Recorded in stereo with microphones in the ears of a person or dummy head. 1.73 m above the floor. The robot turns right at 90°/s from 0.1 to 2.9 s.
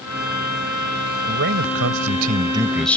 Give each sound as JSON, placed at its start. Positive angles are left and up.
{"t": 1.3, "sound": "a man speaking", "azimuth_deg": -140}